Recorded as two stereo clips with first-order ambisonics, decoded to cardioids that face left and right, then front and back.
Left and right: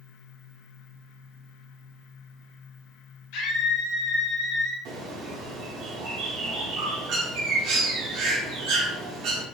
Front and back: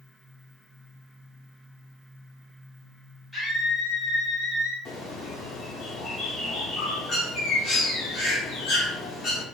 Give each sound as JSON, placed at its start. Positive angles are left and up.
{"t": 3.3, "sound": "a scream", "azimuth_deg": 95, "distance_m": 1.2}
{"t": 4.8, "sound": "a bird", "azimuth_deg": -60, "distance_m": 0.9}